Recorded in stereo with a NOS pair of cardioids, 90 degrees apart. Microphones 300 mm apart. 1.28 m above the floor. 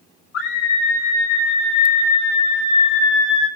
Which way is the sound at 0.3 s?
60° left.